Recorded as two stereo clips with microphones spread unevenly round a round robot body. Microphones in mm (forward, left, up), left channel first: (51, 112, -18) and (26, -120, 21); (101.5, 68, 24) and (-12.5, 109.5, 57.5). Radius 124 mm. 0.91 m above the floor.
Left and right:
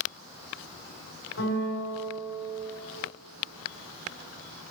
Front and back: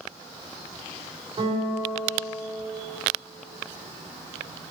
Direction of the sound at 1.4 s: 120° left.